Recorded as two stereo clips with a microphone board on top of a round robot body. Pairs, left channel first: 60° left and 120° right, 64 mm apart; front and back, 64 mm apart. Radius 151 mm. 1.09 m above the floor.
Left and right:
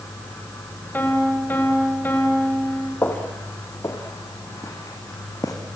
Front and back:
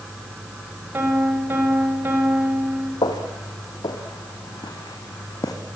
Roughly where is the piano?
Behind left.